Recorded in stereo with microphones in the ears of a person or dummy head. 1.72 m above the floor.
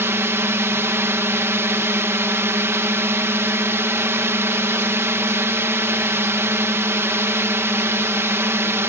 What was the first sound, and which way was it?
A drone, 10° right (ahead or behind).